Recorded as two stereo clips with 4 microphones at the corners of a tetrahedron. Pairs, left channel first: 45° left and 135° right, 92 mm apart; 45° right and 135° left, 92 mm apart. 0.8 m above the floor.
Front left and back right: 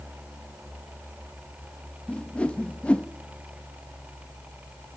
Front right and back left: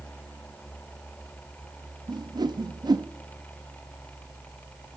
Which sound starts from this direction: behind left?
A whoosh, at 2.1 s.